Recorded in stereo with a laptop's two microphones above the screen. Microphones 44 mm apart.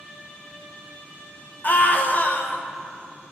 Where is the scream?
40° left (ahead or behind), 1.1 m.